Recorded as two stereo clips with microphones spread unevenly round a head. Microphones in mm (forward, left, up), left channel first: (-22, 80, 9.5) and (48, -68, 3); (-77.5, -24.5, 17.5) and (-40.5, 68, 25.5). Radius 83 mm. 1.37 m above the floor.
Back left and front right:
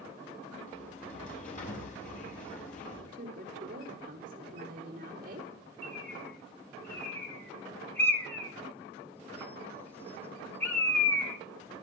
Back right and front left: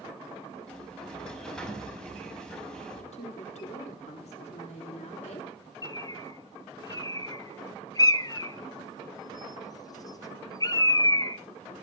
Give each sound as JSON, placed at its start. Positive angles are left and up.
{"t": 0.7, "sound": "a sliding door", "azimuth_deg": 165, "distance_m": 5.5}
{"t": 3.1, "sound": "a woman speaking", "azimuth_deg": -110, "distance_m": 4.0}
{"t": 5.8, "sound": "a bird", "azimuth_deg": -165, "distance_m": 1.3}